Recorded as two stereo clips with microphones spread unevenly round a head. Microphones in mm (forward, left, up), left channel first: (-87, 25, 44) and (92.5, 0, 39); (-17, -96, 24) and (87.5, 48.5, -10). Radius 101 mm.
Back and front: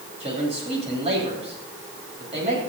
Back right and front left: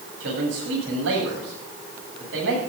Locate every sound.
0.2 s a man speaking: 50° left, 9 m